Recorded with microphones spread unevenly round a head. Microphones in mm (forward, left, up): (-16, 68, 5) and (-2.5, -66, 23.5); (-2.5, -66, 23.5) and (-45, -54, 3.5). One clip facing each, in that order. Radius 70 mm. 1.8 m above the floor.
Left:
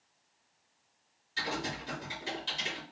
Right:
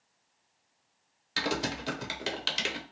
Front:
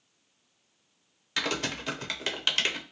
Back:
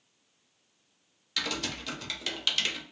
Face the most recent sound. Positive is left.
turn(degrees=-65)